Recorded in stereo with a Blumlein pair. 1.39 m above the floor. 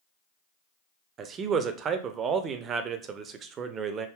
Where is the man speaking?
25° right, 0.5 m.